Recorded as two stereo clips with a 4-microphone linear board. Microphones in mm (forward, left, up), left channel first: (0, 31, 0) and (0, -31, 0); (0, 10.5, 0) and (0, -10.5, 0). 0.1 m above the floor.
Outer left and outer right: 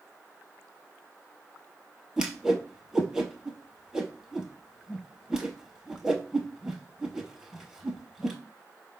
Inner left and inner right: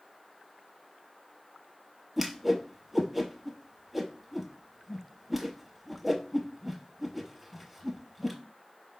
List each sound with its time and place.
2.2 s a whoosh: 10° right (ahead or behind), 0.8 m